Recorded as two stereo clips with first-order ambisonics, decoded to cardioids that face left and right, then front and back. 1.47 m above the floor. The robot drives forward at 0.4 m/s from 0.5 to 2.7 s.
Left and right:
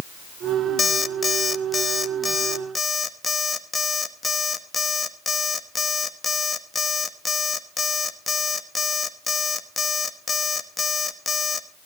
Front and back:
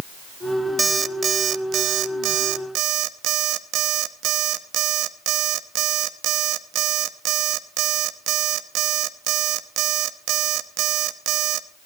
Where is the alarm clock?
125° left, 0.7 m; by 11.7 s 170° left, 1.1 m.